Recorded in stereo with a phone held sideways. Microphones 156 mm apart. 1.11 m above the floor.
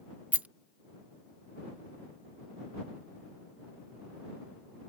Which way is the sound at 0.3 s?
10° right (ahead or behind).